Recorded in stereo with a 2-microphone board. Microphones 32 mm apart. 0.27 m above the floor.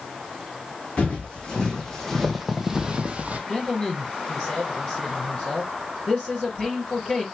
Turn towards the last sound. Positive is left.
turn(degrees=30)  # may be behind; listen again after turning